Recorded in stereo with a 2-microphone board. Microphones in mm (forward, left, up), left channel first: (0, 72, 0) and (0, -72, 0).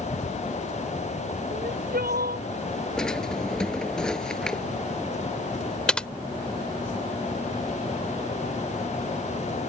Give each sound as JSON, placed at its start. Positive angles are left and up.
{"t": 1.5, "sound": "crying", "side_deg": -85}
{"t": 3.0, "sound": "a drawer", "side_deg": 5}
{"t": 5.9, "sound": "typing on a keyboard", "side_deg": 5}